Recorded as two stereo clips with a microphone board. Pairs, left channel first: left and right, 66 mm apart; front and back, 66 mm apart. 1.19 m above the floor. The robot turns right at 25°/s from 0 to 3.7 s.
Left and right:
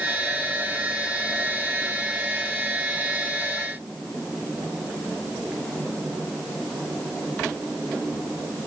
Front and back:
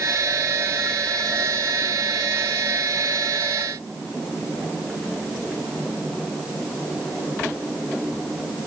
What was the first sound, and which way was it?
Only background noise.